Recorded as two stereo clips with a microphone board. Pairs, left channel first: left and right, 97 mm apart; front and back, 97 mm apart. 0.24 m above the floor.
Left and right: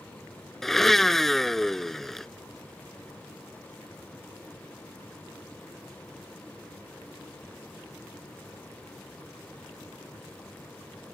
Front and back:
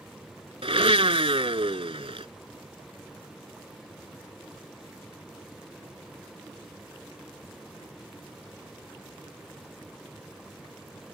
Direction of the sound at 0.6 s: 175° left.